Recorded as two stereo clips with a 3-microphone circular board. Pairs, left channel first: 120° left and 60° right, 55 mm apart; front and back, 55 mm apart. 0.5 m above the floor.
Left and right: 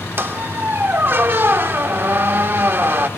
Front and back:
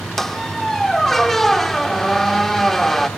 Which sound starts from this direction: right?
A squeak, at 0.2 s.